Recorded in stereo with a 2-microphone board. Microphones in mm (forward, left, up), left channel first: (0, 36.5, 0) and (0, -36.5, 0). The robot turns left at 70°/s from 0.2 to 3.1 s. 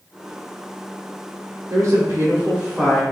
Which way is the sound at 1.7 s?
95° right.